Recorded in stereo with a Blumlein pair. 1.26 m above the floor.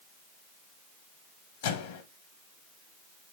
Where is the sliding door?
I don't hear a sliding door.